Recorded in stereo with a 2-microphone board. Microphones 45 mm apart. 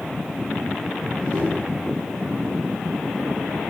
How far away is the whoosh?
About 5 m.